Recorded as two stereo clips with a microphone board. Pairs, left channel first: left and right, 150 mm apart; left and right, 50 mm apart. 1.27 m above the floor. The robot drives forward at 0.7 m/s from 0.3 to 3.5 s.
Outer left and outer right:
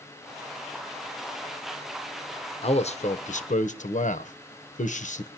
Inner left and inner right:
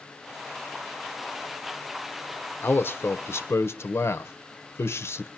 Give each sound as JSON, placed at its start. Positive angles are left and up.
{"t": 2.6, "sound": "a man speaking", "side_deg": 45, "distance_m": 1.1}